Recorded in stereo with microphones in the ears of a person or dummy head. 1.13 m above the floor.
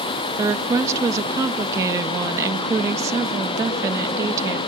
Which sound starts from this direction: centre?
A woman speaking, at 0.4 s.